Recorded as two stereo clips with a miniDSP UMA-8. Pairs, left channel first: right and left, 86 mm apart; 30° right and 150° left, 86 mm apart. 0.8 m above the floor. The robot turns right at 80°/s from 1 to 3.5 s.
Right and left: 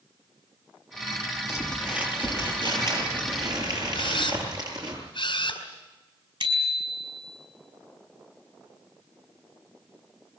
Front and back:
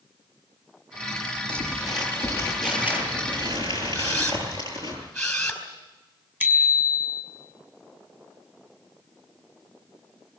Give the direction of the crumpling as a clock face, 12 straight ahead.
1 o'clock.